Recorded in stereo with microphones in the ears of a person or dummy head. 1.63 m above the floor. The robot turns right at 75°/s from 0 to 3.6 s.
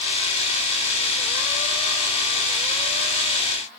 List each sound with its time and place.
Only background noise.